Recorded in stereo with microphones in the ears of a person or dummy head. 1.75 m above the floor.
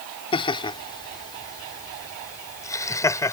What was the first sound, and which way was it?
Laughter, 25° left (ahead or behind).